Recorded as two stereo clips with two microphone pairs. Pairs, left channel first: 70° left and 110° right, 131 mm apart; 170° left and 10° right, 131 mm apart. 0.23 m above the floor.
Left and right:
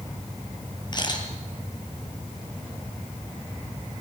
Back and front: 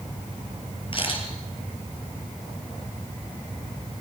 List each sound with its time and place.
0.9 s a camera shutter: 125° left, 4 m